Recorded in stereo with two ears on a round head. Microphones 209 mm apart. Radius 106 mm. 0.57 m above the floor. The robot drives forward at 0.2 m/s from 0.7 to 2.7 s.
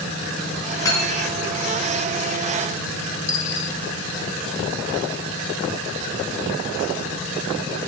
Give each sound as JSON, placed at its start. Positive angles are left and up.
{"t": 0.8, "sound": "cutlery clinking", "side_deg": 15, "distance_m": 3.5}
{"t": 3.3, "sound": "a dropped coin", "side_deg": 55, "distance_m": 1.9}